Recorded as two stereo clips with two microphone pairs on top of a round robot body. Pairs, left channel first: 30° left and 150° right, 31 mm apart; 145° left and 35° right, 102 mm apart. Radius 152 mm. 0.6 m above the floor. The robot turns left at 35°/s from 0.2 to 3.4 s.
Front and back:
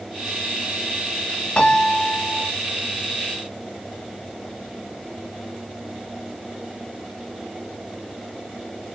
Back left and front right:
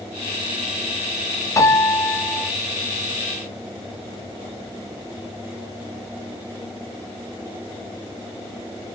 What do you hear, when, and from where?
1.6 s a piano: 85° left, 0.7 m; by 2.5 s 55° left, 0.7 m